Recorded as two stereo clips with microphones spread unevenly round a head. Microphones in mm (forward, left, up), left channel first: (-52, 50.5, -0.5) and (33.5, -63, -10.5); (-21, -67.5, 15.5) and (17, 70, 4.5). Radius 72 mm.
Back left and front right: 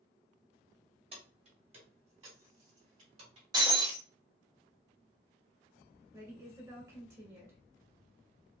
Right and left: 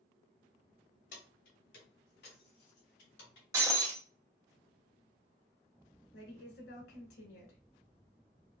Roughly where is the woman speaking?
Right.